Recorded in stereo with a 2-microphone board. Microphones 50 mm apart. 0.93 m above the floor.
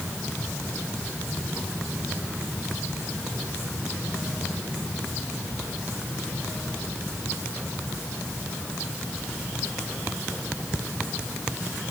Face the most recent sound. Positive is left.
No sound to turn to.